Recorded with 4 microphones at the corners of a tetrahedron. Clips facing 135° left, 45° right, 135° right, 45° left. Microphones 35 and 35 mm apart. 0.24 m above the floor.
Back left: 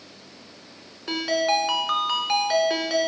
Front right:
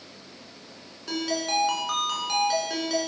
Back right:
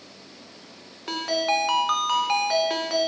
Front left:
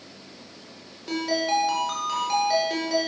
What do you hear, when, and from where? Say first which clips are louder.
1.1 s a ringtone: back left 5 dB, even; 165° right, 1.2 m